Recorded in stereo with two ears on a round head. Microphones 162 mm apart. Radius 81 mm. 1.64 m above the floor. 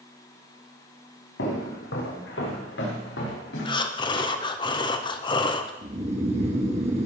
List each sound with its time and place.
1.4 s footsteps: 75° left (ahead or behind), 5.5 m; by 3.8 s 65° left (ahead or behind), 6.5 m
3.6 s breathing: 25° left (ahead or behind), 0.8 m
5.8 s snoring: 35° right (ahead or behind), 1.8 m